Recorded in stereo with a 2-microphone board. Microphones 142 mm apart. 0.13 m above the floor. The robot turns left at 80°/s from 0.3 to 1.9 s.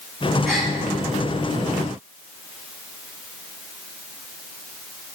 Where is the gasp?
Centre (ahead or behind), 3 m; by 0.7 s 20° right (ahead or behind), 3 m.